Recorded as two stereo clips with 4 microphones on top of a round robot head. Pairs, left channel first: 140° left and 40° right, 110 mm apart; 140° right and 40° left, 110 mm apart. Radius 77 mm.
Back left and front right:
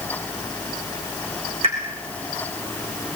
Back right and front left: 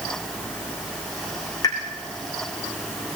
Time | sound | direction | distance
1.6 | a pop | 80° right | 6.5 m